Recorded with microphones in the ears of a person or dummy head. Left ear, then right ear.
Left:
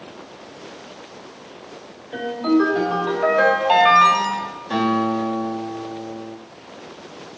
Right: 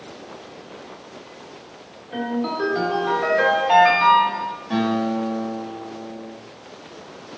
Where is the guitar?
Centre (ahead or behind), 0.9 m.